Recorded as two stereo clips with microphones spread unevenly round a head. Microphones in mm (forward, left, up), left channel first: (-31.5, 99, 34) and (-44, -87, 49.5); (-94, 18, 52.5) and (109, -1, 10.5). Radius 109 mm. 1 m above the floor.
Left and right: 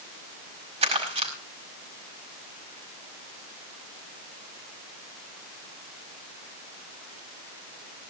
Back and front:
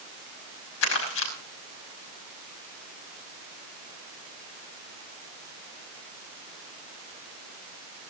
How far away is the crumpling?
About 5 m.